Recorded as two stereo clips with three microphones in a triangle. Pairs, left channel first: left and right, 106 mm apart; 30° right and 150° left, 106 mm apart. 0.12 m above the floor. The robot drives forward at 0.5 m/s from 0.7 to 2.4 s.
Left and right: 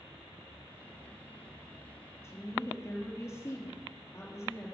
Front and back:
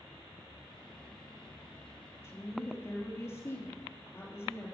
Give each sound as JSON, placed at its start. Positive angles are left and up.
{"t": 2.2, "sound": "a woman speaking", "azimuth_deg": 30, "distance_m": 3.5}